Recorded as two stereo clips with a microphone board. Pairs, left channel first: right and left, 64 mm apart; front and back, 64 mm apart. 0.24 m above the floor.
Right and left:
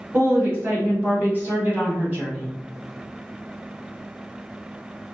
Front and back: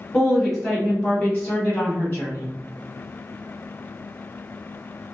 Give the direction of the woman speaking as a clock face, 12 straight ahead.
9 o'clock.